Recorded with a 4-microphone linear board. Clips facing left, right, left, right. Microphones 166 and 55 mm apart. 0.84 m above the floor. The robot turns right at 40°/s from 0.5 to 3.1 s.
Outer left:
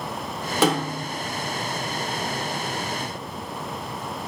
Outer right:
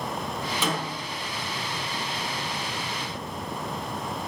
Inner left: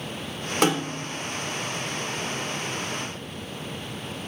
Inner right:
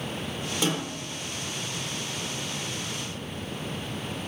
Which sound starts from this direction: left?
A snare drum, at 0.6 s.